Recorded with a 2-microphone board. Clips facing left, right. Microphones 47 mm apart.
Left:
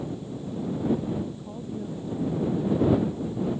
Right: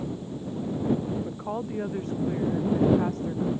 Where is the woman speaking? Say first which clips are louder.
Right 4 dB; 75° right (ahead or behind).